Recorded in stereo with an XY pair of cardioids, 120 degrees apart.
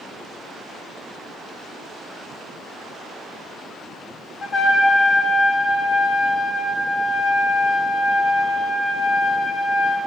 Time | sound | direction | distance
4.4 | a trumpet | 40° left | 0.9 m